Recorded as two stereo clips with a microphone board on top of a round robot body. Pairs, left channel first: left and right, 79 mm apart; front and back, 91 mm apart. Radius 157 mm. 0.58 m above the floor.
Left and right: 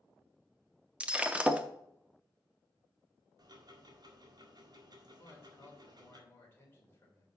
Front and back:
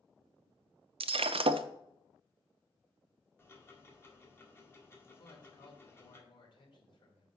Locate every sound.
1.0 s breaking glass: 165° right, 0.5 m
3.4 s ticking: 60° right, 2.0 m
5.2 s a man speaking: 30° left, 3 m